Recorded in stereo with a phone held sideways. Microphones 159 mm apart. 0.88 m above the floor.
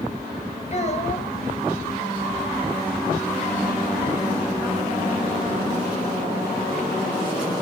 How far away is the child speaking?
About 4 m.